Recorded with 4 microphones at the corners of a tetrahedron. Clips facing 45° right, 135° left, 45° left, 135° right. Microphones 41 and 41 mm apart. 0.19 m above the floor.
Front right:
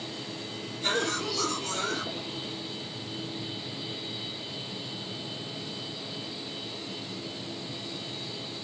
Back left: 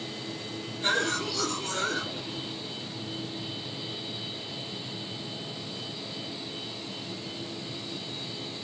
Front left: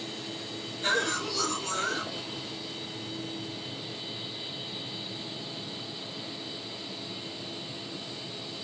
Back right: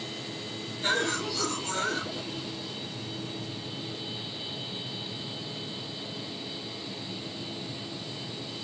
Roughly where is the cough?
Behind.